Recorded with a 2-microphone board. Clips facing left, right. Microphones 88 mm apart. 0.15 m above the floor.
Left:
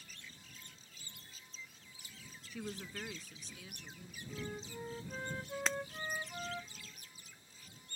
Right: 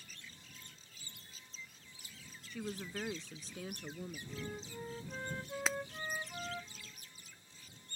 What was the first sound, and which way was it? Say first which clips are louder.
A woman speaking: right 2 dB; 5° left (ahead or behind).